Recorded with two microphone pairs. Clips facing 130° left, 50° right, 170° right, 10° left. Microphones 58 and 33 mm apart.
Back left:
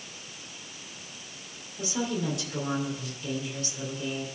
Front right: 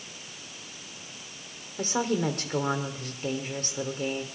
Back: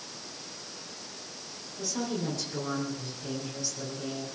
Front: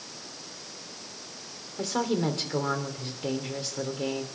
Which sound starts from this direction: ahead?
A woman speaking, at 1.8 s.